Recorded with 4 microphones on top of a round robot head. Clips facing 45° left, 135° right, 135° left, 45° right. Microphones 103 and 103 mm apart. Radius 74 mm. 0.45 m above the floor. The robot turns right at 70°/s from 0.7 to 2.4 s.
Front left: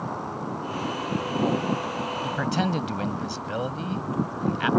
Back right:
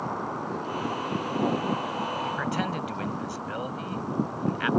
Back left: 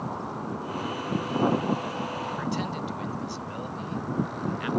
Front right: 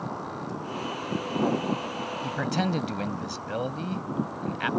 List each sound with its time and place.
2.2 s a man speaking: 30° right; by 4.7 s 20° right